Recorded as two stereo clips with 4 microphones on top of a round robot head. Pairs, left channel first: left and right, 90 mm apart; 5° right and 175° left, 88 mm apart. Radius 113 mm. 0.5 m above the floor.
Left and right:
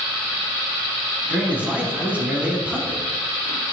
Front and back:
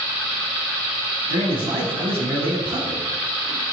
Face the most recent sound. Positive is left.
turn(degrees=-165)